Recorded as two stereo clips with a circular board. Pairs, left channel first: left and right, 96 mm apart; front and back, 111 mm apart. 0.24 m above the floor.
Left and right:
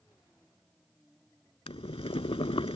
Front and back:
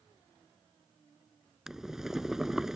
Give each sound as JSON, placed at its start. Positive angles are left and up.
{"t": 1.7, "sound": "boiling", "azimuth_deg": 95}